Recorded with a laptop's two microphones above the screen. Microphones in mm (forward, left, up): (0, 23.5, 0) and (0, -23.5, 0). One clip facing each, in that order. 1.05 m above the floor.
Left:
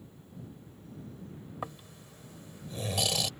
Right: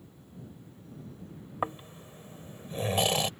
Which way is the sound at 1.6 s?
30° right (ahead or behind).